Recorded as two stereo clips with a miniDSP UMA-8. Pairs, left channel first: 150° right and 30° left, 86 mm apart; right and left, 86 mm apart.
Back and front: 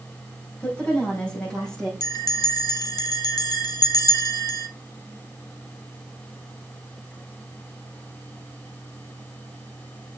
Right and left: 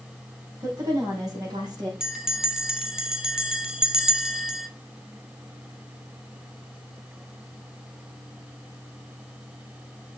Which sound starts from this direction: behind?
A bell, at 2.0 s.